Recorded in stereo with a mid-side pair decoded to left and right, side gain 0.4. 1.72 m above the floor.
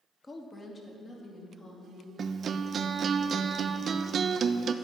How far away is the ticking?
I don't hear ticking.